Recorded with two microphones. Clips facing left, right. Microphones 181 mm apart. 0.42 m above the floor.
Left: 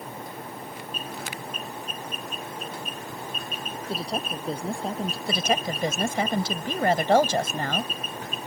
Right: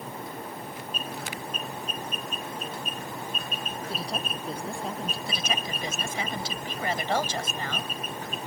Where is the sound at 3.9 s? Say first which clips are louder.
Left 5 dB; 30° left (ahead or behind); by 5.2 s 35° left (ahead or behind).